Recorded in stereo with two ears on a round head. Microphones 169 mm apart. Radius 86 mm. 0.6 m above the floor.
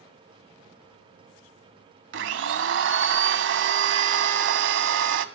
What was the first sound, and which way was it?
A blender, 70° right (ahead or behind).